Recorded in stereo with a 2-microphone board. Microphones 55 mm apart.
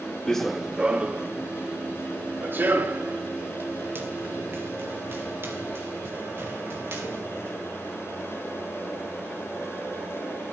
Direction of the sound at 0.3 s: 10° left (ahead or behind).